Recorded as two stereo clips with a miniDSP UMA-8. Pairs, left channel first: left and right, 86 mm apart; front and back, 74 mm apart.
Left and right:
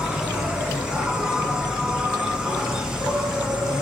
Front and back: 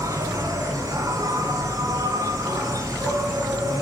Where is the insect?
170° right, 2.5 m.